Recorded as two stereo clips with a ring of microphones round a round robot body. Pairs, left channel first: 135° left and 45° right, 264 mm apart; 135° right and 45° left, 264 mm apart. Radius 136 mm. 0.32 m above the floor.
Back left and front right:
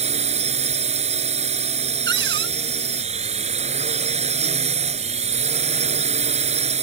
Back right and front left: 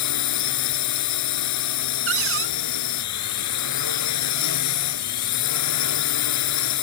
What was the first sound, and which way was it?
A drone, 110° right.